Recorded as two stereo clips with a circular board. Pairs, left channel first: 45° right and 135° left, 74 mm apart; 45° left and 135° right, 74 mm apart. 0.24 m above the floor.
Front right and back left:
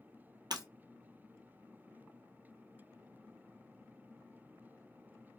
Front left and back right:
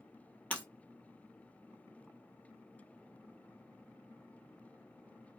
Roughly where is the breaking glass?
Behind left.